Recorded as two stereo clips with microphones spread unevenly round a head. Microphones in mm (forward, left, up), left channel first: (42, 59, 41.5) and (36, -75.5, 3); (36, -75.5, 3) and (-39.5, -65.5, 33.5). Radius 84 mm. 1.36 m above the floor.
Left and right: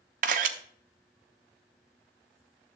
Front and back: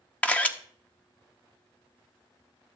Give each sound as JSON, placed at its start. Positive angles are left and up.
{"t": 0.2, "sound": "a camera shutter", "azimuth_deg": -100, "distance_m": 0.8}